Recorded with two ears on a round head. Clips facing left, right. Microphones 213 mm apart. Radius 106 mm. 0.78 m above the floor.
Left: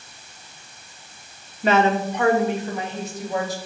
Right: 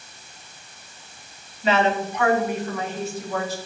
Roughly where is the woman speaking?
Left.